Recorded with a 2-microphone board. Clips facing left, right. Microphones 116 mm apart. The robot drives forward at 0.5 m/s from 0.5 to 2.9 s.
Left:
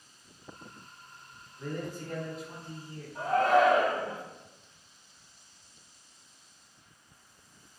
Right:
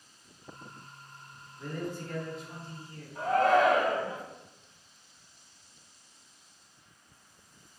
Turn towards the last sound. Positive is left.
turn(degrees=30)  # may be behind; listen again after turning